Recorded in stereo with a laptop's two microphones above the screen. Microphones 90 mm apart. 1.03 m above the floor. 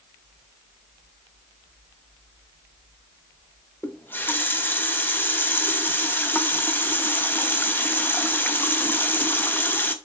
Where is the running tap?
20° left (ahead or behind), 0.7 m.